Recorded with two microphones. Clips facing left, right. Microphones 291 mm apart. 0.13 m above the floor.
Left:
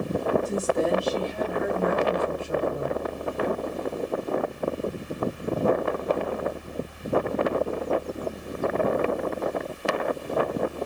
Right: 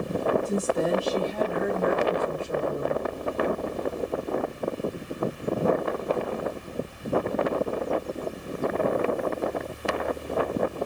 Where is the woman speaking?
Centre (ahead or behind), 1.7 m; by 3.0 s 30° right (ahead or behind), 2.5 m.